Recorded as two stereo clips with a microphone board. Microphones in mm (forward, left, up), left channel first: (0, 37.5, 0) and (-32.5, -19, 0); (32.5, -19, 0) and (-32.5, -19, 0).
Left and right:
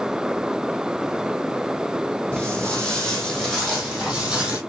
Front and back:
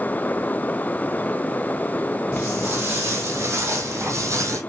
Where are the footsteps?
125° left, 2 m; by 4.6 s 165° left, 2 m.